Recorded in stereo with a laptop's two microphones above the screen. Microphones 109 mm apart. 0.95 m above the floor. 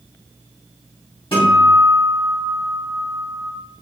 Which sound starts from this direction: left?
A guitar, at 1.3 s.